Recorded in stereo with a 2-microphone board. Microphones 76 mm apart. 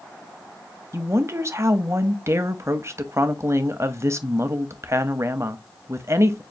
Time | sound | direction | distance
0.9 | a woman speaking | 40° right (ahead or behind) | 0.6 m